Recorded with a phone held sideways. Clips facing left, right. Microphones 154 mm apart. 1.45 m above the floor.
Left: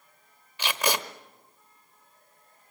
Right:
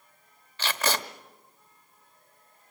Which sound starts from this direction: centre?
Tape being pulled, at 0.6 s.